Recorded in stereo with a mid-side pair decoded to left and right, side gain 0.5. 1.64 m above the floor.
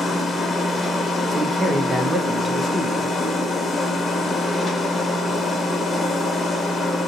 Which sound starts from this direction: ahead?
A machine running, at 0.0 s.